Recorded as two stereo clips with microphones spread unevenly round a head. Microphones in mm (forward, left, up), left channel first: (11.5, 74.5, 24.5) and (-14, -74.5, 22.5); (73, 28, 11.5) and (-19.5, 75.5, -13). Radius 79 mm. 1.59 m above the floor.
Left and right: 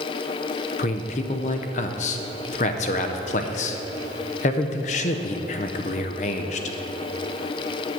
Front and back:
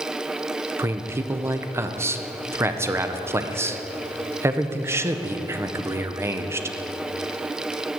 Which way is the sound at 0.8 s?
80° left.